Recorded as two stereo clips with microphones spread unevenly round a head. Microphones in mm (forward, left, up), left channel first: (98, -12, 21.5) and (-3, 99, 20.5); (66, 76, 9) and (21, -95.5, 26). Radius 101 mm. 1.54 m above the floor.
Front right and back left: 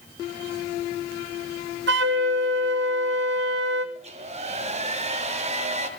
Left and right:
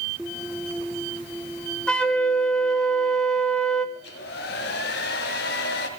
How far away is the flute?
About 1.0 m.